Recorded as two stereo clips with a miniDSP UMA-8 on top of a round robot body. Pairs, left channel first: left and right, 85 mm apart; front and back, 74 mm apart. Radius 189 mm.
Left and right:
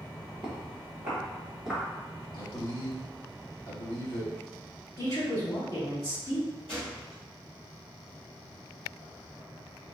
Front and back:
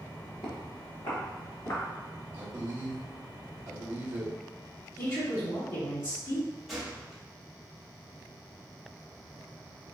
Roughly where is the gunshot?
Left.